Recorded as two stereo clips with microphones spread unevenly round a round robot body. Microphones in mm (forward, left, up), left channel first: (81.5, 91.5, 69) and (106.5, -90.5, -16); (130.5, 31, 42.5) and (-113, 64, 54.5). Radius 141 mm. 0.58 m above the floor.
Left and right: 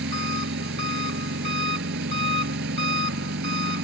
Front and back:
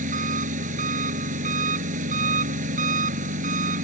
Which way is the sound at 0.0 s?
125° right.